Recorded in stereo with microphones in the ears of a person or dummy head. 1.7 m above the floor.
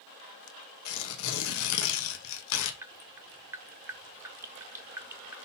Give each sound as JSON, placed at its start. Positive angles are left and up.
{"t": 0.8, "sound": "tearing paper", "side_deg": 80, "distance_m": 1.3}
{"t": 2.8, "sound": "dripping", "side_deg": -10, "distance_m": 0.6}